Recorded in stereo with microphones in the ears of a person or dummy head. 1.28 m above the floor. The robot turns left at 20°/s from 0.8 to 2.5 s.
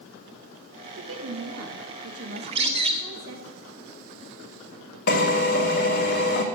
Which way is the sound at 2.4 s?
35° right (ahead or behind).